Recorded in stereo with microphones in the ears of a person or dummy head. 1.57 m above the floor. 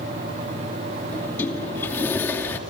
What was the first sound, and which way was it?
A sliding door, 10° left (ahead or behind).